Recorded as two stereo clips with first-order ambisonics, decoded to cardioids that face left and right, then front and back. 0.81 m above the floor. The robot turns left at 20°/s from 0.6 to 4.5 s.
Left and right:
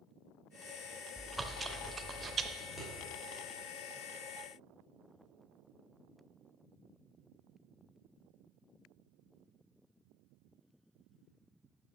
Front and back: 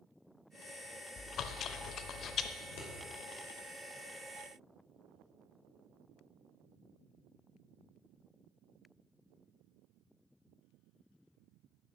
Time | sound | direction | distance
1.2 | chewing | 10° right | 0.6 m
2.6 | scissors | 15° left | 3 m